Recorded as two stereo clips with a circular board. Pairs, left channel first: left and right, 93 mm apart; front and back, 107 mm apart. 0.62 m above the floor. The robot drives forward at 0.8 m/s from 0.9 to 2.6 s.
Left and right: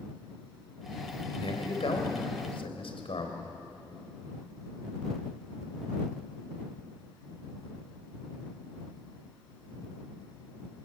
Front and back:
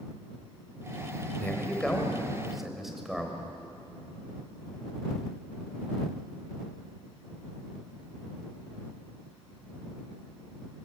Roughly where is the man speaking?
Left.